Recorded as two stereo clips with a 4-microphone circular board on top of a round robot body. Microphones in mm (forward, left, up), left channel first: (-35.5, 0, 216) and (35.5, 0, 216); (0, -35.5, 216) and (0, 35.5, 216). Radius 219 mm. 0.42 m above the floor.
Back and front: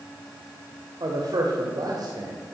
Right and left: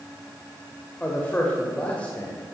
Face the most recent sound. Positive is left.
turn(degrees=-20)